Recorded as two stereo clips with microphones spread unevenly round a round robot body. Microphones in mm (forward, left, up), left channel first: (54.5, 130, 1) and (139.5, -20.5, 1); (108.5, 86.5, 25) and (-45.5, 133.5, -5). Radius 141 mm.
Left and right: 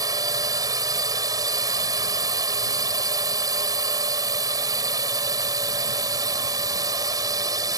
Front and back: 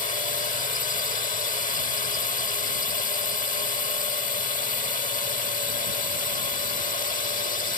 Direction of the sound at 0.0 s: 5° right.